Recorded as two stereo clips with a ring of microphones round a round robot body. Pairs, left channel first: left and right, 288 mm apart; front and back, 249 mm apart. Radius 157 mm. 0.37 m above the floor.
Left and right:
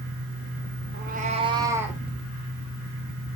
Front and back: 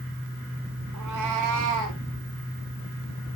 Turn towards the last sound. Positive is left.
turn(degrees=-175)